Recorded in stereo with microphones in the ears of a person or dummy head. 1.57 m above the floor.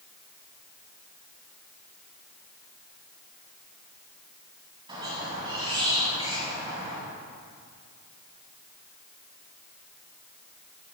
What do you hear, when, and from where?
4.9 s a squeak: 30° right (ahead or behind), 3 m